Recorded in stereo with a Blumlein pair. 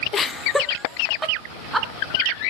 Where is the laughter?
25° left, 0.7 m; by 1.9 s 10° right, 2.5 m.